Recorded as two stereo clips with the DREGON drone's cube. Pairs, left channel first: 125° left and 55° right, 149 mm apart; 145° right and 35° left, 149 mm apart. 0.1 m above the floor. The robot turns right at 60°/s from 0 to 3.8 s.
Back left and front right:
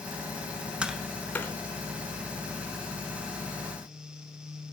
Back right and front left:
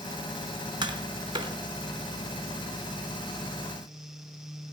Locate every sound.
0.8 s tapping: 20° left, 1.0 m; by 1.5 s 65° left, 1.0 m